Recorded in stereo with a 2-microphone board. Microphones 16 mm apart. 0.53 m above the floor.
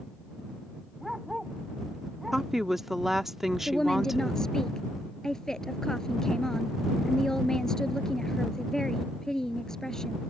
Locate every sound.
1.0 s a dog barking: 10° right (ahead or behind)
2.3 s a woman speaking: 20° right (ahead or behind)
3.7 s a woman speaking: 35° left (ahead or behind)